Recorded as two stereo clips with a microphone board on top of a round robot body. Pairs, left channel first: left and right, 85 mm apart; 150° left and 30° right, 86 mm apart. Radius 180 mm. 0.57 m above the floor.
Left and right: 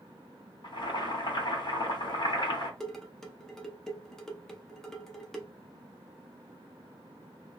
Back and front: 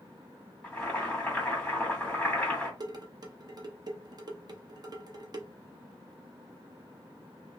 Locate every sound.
0.6 s boiling: 80° left, 2.5 m
2.8 s dishes clattering: 5° left, 0.9 m